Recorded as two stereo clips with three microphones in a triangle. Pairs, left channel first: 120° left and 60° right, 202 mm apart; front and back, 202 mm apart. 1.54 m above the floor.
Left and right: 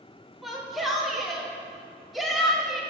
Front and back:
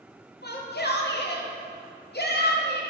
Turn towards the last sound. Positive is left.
turn(degrees=30)